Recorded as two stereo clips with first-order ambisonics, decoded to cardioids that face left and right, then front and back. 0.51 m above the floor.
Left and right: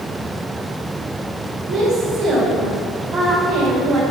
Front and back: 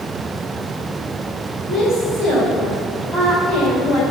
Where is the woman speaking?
55° right, 2.5 m.